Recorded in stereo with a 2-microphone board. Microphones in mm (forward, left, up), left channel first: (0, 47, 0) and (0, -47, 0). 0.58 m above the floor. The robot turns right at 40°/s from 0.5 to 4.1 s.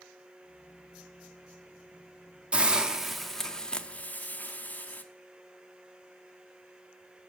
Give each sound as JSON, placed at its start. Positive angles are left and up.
{"t": 2.5, "sound": "a hiss", "side_deg": -15, "distance_m": 0.5}